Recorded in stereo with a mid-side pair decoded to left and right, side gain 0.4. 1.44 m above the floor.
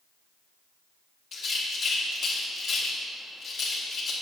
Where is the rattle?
65° left, 2.5 m.